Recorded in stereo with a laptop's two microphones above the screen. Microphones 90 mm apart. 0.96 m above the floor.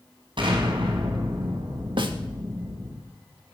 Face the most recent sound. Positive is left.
turn(degrees=-70)  # may be behind; listen again after turning